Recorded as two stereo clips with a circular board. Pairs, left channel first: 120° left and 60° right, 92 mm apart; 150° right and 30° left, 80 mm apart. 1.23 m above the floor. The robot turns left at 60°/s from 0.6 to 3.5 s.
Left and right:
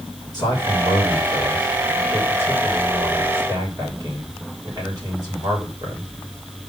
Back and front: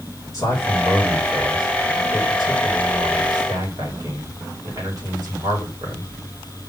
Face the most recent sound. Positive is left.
turn(degrees=-10)